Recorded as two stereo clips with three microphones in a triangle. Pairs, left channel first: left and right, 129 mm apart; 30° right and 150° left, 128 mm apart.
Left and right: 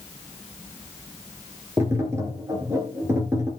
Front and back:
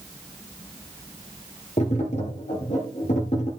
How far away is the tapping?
About 2.5 m.